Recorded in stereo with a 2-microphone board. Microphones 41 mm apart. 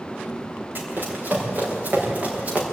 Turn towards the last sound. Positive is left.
turn(degrees=-35)  # may be behind; listen again after turning